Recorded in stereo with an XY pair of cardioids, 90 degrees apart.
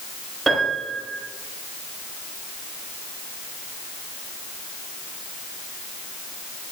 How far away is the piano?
About 7.5 m.